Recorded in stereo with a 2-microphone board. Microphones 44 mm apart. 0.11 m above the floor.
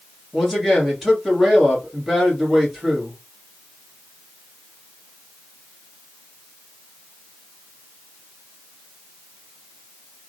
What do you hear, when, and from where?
0.3 s a man speaking: centre (ahead or behind), 1.8 m